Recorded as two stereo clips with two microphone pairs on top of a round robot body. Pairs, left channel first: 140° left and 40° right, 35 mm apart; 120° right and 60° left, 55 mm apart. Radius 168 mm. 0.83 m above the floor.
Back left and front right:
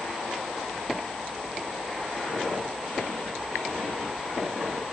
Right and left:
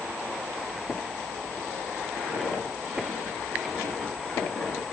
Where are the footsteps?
105° left, 1.4 m; by 4.8 s 60° right, 0.8 m.